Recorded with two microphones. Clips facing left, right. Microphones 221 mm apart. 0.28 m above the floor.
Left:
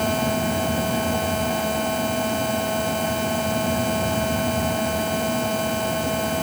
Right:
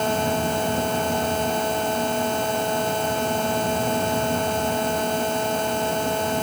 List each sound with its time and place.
Only background noise.